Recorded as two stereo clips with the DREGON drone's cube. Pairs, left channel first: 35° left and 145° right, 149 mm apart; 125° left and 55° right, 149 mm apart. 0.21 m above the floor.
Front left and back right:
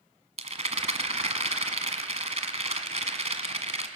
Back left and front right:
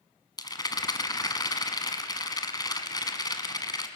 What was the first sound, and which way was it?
A rattle, straight behind.